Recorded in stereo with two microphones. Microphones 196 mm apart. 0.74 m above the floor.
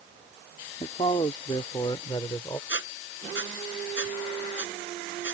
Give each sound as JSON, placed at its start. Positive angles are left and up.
{"t": 0.8, "sound": "a man speaking", "side_deg": 30}
{"t": 2.7, "sound": "a squeak", "side_deg": 75}